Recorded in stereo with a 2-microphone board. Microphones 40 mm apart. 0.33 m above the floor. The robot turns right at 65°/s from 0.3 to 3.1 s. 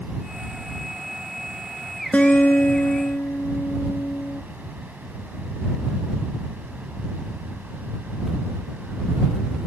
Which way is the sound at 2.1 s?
40° left.